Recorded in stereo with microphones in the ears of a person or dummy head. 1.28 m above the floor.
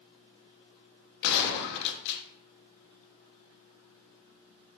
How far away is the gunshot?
About 0.6 m.